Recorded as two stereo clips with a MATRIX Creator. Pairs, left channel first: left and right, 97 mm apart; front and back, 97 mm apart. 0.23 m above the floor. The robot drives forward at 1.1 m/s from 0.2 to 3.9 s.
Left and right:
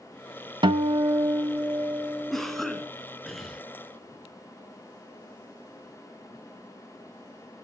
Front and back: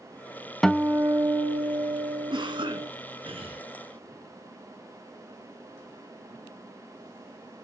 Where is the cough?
Straight behind, 2 m.